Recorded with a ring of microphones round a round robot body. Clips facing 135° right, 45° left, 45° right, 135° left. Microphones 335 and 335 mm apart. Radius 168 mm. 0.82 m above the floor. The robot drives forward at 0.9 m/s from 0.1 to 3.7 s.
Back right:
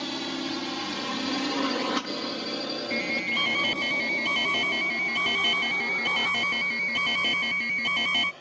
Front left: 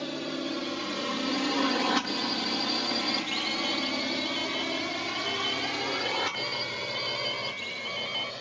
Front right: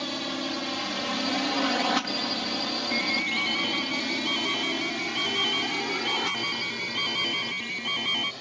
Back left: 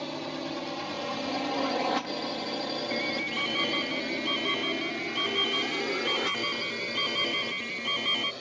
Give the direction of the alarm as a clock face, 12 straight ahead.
4 o'clock.